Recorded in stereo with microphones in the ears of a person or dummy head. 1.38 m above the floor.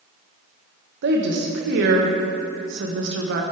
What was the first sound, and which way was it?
A woman speaking, 55° right (ahead or behind).